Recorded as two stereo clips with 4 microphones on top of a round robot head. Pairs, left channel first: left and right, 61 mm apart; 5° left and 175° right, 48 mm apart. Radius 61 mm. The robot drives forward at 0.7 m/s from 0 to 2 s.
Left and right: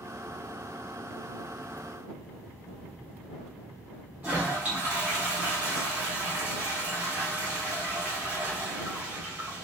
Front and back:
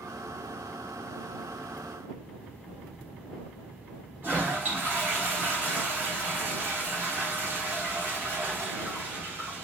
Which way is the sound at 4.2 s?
150° right.